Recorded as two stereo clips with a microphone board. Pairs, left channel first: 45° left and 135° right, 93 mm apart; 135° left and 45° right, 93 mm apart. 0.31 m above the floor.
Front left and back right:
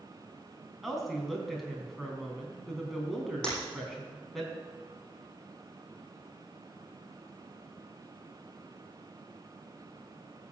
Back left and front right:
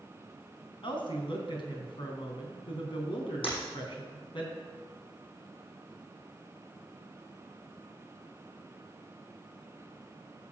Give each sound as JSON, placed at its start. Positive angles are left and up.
{"t": 0.8, "sound": "a woman speaking", "azimuth_deg": 135, "distance_m": 3.0}
{"t": 3.4, "sound": "breaking glass", "azimuth_deg": 125, "distance_m": 7.0}